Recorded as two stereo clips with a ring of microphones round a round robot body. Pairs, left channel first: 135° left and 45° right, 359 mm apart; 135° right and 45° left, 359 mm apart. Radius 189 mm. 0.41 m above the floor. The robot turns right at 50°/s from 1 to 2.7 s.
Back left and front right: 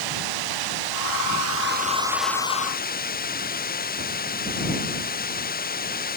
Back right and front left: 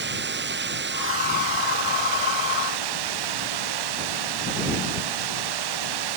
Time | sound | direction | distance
0.0 | running water | 15° right | ?